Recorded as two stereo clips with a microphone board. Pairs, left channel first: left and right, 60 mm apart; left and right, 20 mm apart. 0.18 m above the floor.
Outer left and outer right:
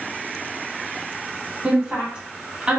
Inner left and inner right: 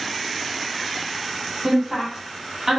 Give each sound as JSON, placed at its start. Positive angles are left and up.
{"t": 1.6, "sound": "a woman speaking", "side_deg": -15, "distance_m": 1.0}